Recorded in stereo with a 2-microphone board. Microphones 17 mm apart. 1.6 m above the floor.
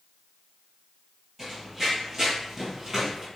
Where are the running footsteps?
5° right (ahead or behind), 1.8 m; by 3.3 s 15° right (ahead or behind), 1.6 m.